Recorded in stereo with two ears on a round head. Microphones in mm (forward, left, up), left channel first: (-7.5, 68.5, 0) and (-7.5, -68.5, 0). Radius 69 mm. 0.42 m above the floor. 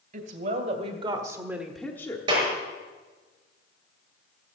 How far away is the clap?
About 6.5 m.